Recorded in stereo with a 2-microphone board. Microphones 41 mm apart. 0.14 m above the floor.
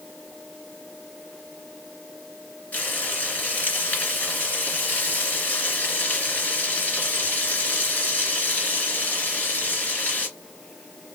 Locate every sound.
2.7 s frying: 40° left (ahead or behind), 2 m